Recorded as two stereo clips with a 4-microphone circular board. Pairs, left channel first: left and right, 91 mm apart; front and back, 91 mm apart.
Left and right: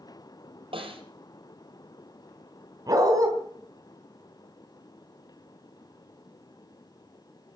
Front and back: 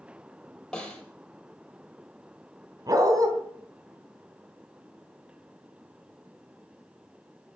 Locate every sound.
0.7 s a snare drum: 85° right, 6 m
2.9 s a dog barking: 135° right, 3.5 m